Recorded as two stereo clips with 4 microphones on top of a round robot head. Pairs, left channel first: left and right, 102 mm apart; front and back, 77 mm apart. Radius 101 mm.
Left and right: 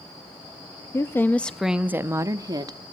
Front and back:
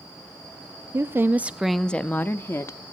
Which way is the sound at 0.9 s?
140° left.